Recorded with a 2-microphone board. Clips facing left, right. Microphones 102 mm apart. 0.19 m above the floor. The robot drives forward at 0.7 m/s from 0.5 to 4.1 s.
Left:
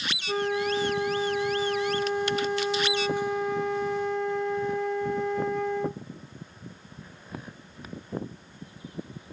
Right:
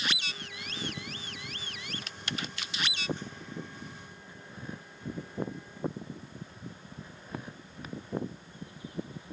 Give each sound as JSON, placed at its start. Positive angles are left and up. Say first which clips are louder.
{"t": 0.3, "sound": "a flute", "louder": "left 19 dB", "side_deg": 70}